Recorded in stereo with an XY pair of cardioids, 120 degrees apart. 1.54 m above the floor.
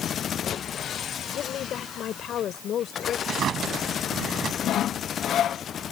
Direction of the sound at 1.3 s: 60° left.